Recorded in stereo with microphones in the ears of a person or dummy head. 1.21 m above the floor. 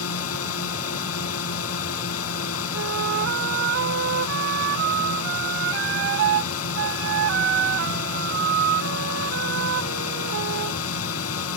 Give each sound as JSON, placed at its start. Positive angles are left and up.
{"t": 0.0, "sound": "a drone", "side_deg": 85}
{"t": 2.7, "sound": "a flute", "side_deg": -65}